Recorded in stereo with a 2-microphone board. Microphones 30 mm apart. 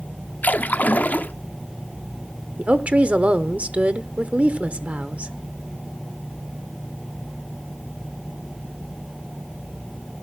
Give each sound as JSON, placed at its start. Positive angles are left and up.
{"t": 0.4, "sound": "a splash", "side_deg": 70, "distance_m": 0.6}
{"t": 2.6, "sound": "a woman speaking", "side_deg": -50, "distance_m": 0.8}